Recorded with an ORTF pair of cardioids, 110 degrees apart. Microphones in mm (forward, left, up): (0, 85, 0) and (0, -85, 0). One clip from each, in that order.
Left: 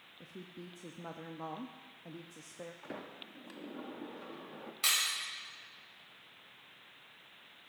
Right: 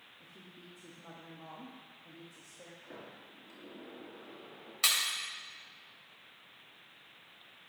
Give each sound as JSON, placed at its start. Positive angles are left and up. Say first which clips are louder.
{"t": 0.2, "sound": "a woman speaking", "louder": "left 8 dB", "azimuth_deg": 45, "distance_m": 0.7}
{"t": 2.8, "sound": "a sliding door", "louder": "left 4 dB", "azimuth_deg": 55, "distance_m": 1.1}
{"t": 4.8, "sound": "breaking glass", "louder": "right 1 dB", "azimuth_deg": -30, "distance_m": 4.0}